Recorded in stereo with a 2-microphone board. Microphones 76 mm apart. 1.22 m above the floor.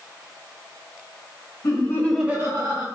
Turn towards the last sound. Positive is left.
turn(degrees=-60)  # may be behind; listen again after turning